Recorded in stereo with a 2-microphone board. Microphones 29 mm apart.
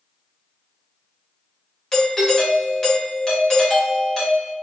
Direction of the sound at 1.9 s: 20° left (ahead or behind).